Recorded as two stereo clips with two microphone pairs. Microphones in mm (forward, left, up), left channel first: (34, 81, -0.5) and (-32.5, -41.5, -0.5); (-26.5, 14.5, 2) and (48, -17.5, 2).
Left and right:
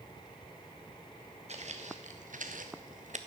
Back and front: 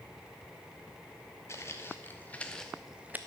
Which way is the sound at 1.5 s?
150° right.